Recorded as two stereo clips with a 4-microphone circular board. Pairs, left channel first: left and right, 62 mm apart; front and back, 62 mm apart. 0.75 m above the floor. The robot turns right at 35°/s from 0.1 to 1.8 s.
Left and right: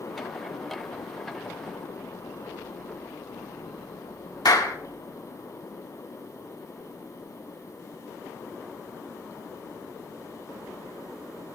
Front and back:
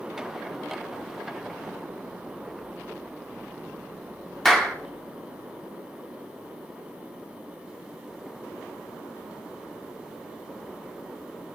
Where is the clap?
85° left, 1.8 m.